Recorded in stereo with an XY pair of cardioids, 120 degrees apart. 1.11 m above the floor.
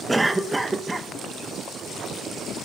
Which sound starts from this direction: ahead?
A cough, at 0.1 s.